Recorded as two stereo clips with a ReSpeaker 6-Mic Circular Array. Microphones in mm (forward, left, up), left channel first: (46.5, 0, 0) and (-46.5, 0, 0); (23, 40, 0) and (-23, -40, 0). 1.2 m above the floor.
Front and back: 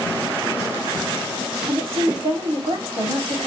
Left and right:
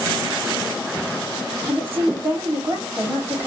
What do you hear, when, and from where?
1.7 s a woman speaking: 170° left, 3 m